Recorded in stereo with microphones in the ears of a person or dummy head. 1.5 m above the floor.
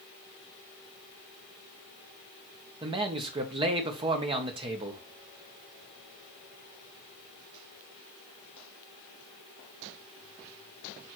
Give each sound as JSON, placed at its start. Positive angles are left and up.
{"t": 2.8, "sound": "a man speaking", "side_deg": -25, "distance_m": 1.3}